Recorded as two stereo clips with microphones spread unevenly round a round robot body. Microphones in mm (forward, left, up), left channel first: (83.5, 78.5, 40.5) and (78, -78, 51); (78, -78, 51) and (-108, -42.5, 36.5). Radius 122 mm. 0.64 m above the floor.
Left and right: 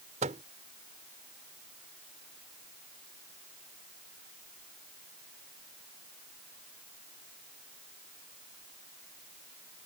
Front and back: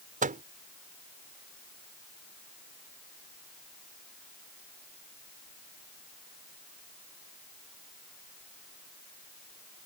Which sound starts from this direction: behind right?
A microwave, at 0.2 s.